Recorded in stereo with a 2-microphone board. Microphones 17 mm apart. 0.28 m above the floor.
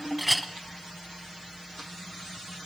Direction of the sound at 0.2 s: 5° right (ahead or behind).